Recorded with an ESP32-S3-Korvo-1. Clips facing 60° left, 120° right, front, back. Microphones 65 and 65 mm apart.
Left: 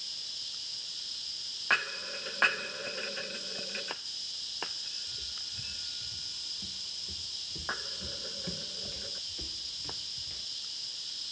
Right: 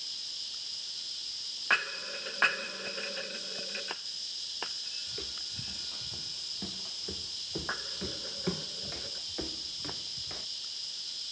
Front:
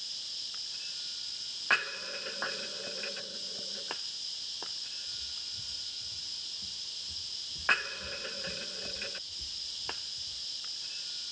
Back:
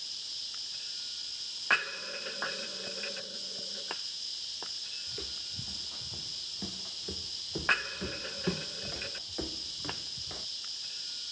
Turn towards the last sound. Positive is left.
turn(degrees=-170)